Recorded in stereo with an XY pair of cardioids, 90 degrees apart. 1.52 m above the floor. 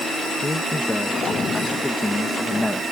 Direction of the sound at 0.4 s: 20° left.